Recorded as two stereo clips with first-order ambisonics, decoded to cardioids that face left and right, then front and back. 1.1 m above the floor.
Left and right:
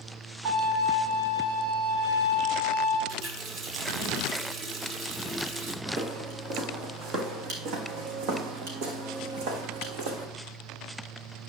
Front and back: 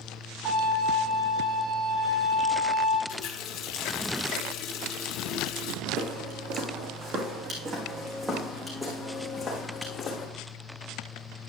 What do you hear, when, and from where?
0.5 s a violin: 115° right, 3 m
3.1 s a running tap: 35° right, 1.8 m
5.8 s footsteps: 150° right, 4.5 m; by 10.3 s 65° right, 4.5 m